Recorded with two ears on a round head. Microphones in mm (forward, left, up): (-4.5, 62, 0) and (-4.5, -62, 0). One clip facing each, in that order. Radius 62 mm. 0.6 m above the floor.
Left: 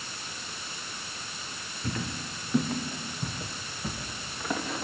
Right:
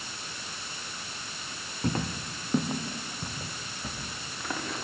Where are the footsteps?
35° right (ahead or behind), 2.5 m; by 4.8 s 5° left (ahead or behind), 5.5 m.